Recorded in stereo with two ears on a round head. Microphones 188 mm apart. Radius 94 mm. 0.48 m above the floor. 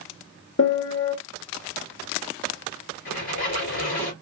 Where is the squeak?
65° left (ahead or behind), 3.5 m.